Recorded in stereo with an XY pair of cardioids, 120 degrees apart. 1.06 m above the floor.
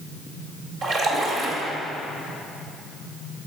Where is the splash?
60° right, 1.8 m.